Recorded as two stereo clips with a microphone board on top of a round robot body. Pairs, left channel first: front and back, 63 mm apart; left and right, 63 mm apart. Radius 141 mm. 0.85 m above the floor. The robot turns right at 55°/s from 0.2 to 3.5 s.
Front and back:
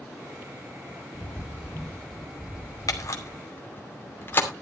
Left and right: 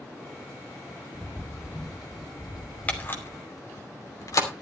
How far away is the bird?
About 0.7 m.